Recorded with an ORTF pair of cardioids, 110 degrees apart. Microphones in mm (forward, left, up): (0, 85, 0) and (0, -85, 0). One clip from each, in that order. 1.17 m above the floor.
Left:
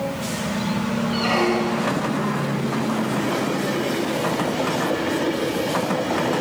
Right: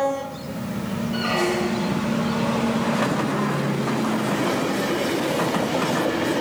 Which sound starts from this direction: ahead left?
A squeak, at 1.1 s.